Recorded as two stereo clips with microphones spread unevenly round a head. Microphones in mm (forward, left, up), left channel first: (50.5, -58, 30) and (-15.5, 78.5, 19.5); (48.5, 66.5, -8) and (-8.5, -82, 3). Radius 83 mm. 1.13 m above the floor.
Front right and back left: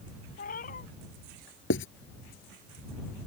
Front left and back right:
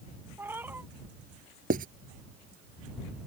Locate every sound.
0.4 s a cat meowing: 35° right
1.7 s writing: 75° right